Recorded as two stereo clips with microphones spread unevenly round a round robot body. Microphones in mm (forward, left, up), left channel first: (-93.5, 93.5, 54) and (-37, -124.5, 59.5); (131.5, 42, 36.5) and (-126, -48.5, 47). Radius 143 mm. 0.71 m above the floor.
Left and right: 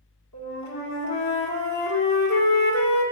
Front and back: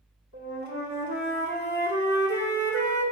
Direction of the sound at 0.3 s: 70° left.